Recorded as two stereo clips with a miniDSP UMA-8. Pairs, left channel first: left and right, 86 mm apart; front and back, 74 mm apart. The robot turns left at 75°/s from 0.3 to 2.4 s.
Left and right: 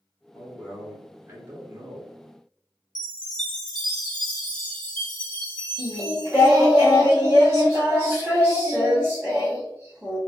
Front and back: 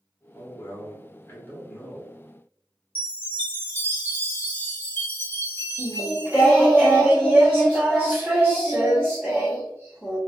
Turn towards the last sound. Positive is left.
turn(degrees=-130)